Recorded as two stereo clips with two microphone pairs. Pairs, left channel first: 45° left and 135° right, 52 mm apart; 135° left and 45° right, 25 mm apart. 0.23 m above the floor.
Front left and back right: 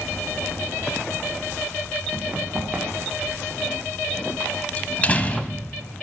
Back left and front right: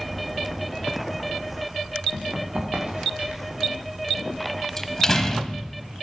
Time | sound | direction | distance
2.1 | running footsteps | 80° right | 6 m
4.8 | a door slam | 75° left | 1.2 m